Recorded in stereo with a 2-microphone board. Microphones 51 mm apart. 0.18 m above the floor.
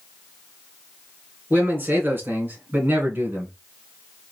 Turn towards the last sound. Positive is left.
turn(degrees=-40)  # may be behind; listen again after turning